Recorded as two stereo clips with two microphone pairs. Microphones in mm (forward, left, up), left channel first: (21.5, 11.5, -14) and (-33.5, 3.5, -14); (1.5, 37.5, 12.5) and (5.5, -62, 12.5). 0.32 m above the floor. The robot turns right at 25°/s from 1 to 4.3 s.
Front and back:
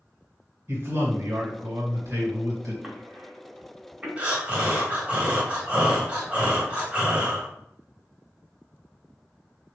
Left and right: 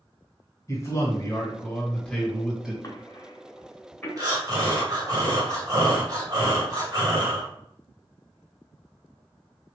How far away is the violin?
No violin in this recording.